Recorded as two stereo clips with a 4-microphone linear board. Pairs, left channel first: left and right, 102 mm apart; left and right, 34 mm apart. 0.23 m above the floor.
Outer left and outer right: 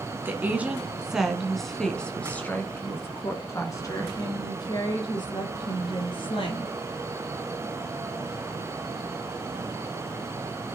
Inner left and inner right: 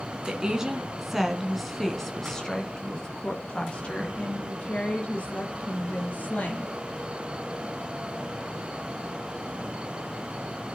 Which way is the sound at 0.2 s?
20° right (ahead or behind).